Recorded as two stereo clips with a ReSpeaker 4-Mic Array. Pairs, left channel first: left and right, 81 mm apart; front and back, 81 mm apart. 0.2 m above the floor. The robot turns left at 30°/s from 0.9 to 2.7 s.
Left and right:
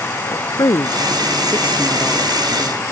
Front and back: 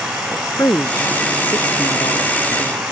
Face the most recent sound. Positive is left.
turn(degrees=-5)